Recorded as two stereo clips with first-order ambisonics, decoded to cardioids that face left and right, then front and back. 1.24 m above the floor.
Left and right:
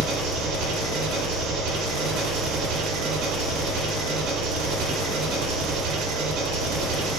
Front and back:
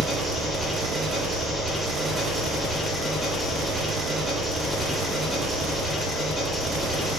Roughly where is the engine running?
Right.